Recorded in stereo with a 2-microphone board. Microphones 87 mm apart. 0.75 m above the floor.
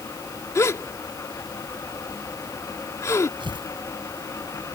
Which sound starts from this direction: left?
A gasp, at 0.6 s.